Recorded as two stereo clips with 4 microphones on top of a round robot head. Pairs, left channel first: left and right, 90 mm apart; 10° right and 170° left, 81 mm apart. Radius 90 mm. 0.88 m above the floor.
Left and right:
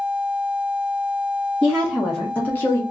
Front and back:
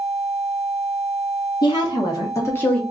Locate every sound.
1.6 s a woman speaking: 5° right, 1.2 m; by 2.8 s 60° left, 0.8 m